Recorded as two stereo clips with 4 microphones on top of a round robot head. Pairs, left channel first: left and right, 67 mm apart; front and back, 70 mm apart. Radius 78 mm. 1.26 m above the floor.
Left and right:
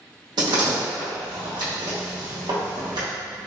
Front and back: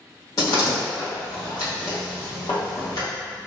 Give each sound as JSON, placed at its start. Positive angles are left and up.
{"t": 0.4, "sound": "a door slam", "azimuth_deg": -55, "distance_m": 0.9}